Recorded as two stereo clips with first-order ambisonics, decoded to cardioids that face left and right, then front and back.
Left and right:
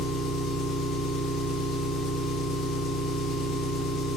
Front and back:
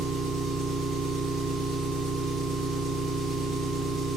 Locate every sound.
0.0 s an engine running: 130° left, 1.8 m